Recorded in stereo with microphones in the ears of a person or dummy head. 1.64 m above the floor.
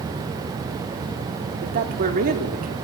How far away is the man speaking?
About 3.5 m.